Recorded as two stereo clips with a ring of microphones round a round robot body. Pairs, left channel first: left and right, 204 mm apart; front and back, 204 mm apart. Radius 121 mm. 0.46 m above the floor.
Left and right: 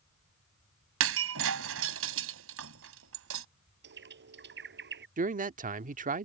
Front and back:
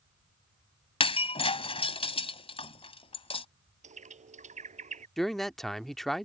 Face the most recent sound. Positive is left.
turn(degrees=-90)